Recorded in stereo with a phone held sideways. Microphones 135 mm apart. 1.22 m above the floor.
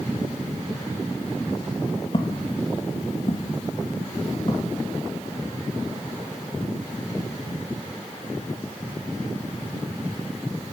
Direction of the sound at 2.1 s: 35° left (ahead or behind).